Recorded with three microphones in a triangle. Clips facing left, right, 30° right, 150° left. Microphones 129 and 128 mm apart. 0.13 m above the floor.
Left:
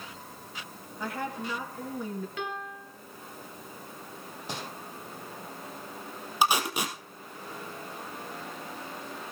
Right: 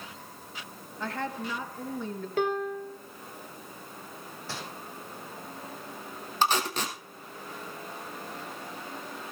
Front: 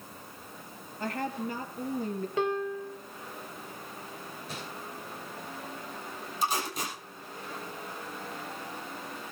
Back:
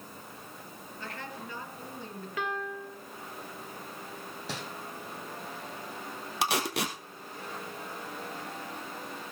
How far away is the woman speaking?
About 2.5 m.